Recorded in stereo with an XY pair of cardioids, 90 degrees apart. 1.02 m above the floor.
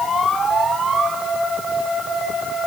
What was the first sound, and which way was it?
Only background noise.